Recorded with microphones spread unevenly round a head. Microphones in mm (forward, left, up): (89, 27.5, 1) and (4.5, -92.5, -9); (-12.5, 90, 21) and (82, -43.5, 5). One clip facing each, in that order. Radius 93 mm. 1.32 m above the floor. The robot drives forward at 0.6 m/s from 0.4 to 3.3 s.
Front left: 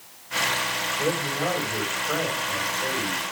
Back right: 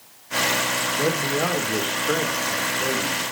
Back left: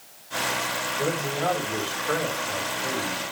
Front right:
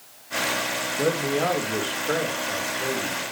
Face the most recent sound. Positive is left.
turn(degrees=-145)